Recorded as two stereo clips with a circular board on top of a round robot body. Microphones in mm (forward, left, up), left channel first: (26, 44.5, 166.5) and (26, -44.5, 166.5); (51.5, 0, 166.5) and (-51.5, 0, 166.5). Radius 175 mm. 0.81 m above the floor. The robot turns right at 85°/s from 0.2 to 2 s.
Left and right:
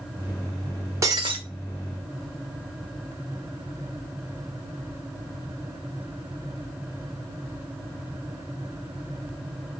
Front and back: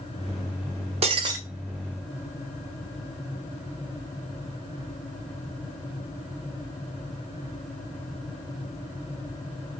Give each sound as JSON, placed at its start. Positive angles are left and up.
{"t": 1.0, "sound": "breaking glass", "azimuth_deg": -150, "distance_m": 1.2}